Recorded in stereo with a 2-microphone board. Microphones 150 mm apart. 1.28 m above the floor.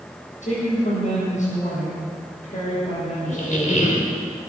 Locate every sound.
0.4 s a woman speaking: 55° left (ahead or behind), 6 m
3.3 s a squeak: 55° left (ahead or behind), 2.5 m